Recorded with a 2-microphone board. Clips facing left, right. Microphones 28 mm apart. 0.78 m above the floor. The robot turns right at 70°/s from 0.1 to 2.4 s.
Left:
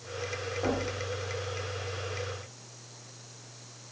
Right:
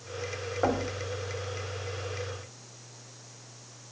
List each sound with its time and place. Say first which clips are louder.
0.6 s knocking: right 3 dB; 70° right (ahead or behind), 2 m